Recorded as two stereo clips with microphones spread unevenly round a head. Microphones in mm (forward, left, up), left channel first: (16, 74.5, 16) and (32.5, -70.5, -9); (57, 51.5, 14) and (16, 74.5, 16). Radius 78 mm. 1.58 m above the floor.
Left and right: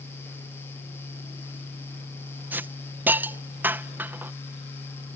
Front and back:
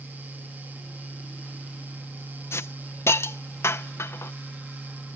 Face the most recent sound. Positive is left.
turn(degrees=-5)